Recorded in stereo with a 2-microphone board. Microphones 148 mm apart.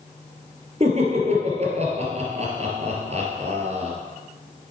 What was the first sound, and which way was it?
Laughter, 45° right (ahead or behind).